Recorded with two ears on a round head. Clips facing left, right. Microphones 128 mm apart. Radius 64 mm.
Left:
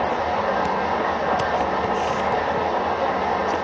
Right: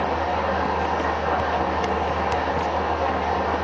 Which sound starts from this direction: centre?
An engine running, at 0.0 s.